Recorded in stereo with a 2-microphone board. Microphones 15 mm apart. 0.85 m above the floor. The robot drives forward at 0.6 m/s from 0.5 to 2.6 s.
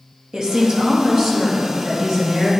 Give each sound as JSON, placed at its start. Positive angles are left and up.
{"t": 0.3, "sound": "a woman speaking", "side_deg": -45, "distance_m": 1.2}